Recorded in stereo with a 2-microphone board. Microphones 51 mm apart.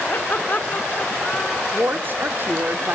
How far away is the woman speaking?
About 0.9 m.